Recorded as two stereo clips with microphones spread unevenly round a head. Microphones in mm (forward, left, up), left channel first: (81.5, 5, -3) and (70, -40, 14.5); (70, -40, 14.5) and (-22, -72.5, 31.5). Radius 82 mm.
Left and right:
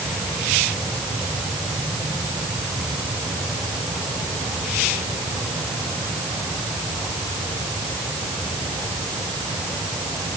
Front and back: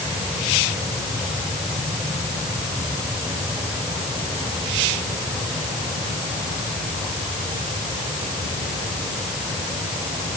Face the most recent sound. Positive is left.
No sound to turn to.